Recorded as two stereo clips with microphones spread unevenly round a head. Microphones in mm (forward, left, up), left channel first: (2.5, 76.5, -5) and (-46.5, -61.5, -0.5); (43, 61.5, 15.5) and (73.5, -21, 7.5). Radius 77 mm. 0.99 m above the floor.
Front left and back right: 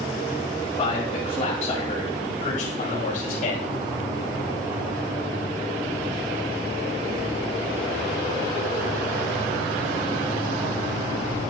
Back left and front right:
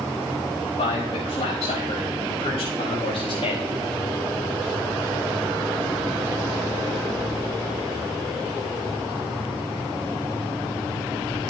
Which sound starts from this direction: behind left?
A man speaking, at 0.8 s.